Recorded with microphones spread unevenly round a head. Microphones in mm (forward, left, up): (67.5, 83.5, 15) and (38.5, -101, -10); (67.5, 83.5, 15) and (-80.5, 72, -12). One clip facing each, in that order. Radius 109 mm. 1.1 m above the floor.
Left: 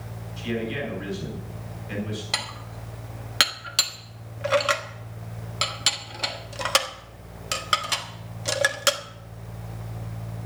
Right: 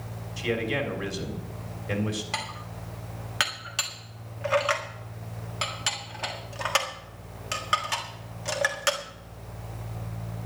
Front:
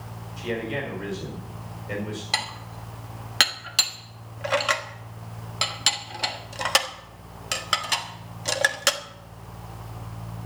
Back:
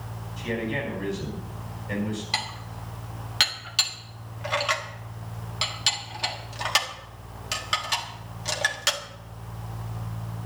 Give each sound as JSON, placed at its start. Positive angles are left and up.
{"t": 0.4, "sound": "a man speaking", "azimuth_deg": -75, "distance_m": 4.0}
{"t": 2.3, "sound": "dishes clattering", "azimuth_deg": 35, "distance_m": 1.5}